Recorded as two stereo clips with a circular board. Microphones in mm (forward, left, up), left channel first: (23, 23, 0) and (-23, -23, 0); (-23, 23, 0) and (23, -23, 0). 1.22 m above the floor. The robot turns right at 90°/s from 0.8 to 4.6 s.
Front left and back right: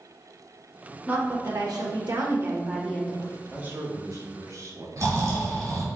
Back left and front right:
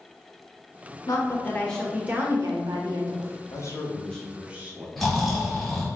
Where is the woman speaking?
155° left, 1.1 m; by 3.4 s 5° left, 1.1 m.